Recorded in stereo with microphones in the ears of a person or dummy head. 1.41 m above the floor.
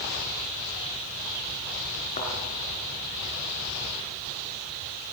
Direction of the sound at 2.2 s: 35° left (ahead or behind).